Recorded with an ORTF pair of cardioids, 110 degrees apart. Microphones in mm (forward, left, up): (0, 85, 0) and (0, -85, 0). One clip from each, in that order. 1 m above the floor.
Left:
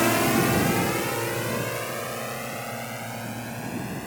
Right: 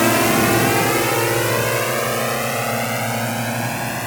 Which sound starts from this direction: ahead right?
A drone, at 0.0 s.